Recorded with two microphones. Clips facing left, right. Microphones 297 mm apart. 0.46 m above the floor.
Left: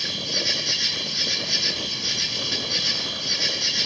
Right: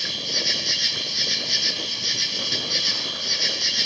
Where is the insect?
60° left (ahead or behind), 5.5 m.